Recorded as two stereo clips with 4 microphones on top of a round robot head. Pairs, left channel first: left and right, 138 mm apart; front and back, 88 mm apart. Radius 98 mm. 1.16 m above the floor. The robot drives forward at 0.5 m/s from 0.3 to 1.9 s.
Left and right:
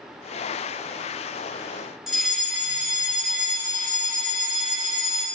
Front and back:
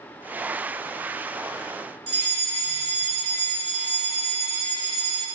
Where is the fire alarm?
Straight behind, 5.5 m.